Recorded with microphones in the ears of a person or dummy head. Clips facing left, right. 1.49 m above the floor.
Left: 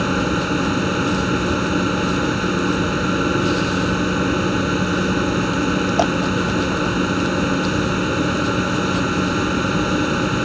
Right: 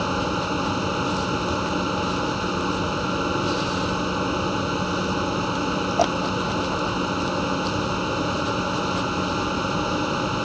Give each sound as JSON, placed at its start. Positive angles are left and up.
{"t": 0.0, "sound": "a machine running", "side_deg": 25}